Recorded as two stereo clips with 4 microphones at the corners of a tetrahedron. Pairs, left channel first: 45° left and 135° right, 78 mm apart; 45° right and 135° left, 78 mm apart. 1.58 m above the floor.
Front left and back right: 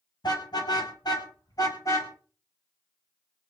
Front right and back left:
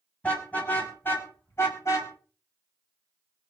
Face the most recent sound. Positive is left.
turn(degrees=0)